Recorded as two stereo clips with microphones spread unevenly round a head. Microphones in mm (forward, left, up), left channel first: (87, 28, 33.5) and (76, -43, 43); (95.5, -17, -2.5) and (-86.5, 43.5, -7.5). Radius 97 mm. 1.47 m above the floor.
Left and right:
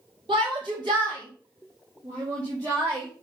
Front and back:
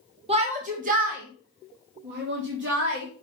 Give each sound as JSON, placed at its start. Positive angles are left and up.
{"t": 0.3, "sound": "a shout", "azimuth_deg": -135, "distance_m": 1.6}